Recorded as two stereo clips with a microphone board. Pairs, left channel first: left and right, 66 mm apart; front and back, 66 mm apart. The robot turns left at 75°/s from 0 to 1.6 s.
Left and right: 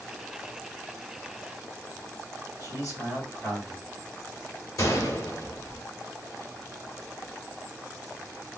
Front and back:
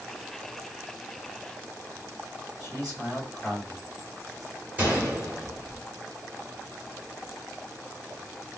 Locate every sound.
2.6 s a man speaking: 85° left, 2 m
4.8 s a gunshot: 115° left, 1.4 m